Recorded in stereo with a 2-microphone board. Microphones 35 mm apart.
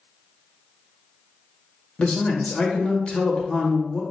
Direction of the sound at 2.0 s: 30° left (ahead or behind).